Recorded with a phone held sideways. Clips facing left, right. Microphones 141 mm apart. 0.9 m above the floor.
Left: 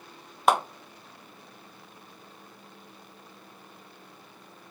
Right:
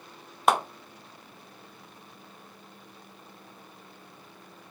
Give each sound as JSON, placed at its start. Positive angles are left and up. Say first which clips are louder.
{"t": 0.5, "sound": "a clap", "louder": "left 1 dB", "side_deg": 0, "distance_m": 0.6}